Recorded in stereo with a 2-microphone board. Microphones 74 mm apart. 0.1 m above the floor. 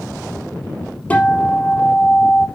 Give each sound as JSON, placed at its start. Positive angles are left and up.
{"t": 1.1, "sound": "a guitar", "side_deg": 20, "distance_m": 3.5}